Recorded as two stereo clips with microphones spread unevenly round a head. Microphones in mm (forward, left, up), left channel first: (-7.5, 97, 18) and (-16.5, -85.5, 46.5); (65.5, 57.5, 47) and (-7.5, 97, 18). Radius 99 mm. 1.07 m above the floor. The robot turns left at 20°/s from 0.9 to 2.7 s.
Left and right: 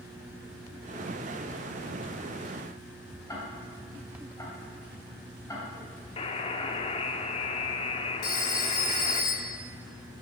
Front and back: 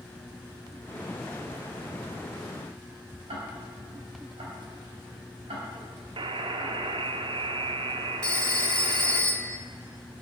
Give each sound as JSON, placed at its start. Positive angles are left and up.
{"t": 3.3, "sound": "ticking", "azimuth_deg": 160, "distance_m": 3.5}
{"t": 6.2, "sound": "a buzzer", "azimuth_deg": 145, "distance_m": 0.7}
{"t": 8.2, "sound": "a phone ringing", "azimuth_deg": 45, "distance_m": 2.0}